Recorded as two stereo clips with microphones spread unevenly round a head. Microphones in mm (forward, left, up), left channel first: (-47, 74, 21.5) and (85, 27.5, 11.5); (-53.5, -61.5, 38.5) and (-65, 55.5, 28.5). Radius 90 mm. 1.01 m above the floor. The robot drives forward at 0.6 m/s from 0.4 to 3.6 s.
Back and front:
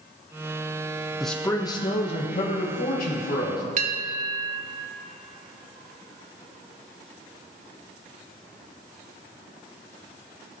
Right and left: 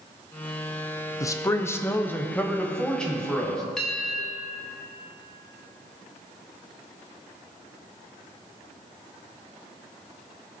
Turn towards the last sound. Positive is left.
turn(degrees=-5)